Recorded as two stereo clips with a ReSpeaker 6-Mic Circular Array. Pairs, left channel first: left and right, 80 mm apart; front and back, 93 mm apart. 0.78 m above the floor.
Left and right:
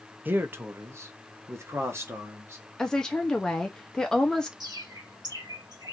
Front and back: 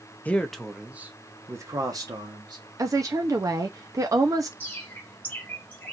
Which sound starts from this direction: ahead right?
A man speaking, at 0.2 s.